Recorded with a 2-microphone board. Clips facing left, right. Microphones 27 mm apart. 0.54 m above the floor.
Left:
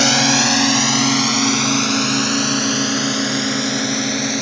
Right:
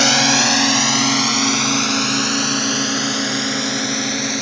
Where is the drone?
10° right (ahead or behind); by 4.4 s 5° right (ahead or behind).